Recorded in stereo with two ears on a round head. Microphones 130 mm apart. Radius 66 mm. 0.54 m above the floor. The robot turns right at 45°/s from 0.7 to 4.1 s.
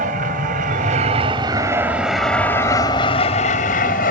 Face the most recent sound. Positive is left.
turn(degrees=60)  # may be behind; listen again after turning